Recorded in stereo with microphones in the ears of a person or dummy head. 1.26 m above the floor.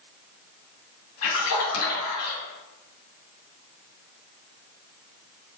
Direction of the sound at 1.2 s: 80° left.